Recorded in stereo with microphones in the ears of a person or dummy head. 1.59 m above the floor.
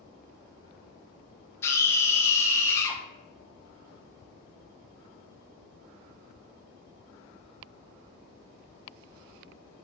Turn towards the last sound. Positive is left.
turn(degrees=15)  # may be behind; listen again after turning